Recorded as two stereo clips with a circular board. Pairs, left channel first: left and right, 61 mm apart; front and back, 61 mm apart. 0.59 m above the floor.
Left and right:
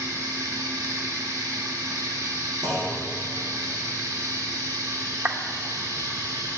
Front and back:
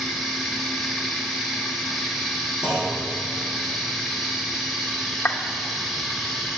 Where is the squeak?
No squeak in this recording.